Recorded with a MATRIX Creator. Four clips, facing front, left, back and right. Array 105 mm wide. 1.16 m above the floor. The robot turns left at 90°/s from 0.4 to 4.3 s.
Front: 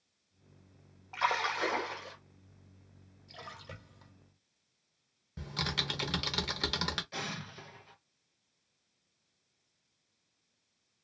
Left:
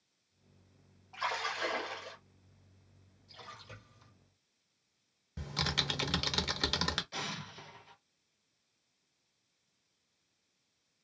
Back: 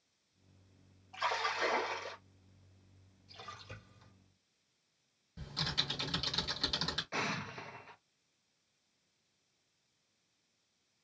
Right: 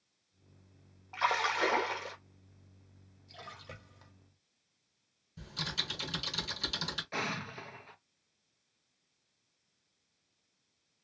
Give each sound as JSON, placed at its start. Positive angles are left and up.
{"t": 1.1, "sound": "a splash", "azimuth_deg": -30, "distance_m": 0.7}
{"t": 3.3, "sound": "a splash", "azimuth_deg": -5, "distance_m": 1.1}
{"t": 5.4, "sound": "typing on a keyboard", "azimuth_deg": 60, "distance_m": 0.7}
{"t": 7.1, "sound": "an explosion", "azimuth_deg": -125, "distance_m": 0.6}